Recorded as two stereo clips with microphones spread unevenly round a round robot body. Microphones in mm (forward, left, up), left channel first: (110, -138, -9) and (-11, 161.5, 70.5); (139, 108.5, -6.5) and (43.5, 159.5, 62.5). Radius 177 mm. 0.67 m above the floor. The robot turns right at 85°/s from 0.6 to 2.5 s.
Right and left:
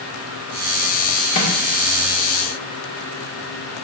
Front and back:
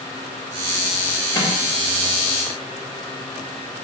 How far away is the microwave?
About 1.9 m.